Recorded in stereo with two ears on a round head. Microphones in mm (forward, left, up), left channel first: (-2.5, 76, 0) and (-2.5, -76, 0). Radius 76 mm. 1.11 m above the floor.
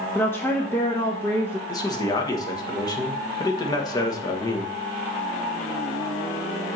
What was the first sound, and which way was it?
A woman speaking, 15° left (ahead or behind).